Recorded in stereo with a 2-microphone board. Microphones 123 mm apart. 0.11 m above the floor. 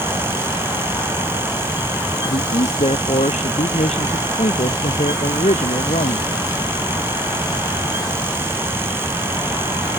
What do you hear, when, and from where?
2.2 s a man speaking: 60° left (ahead or behind); by 6.6 s 70° left (ahead or behind)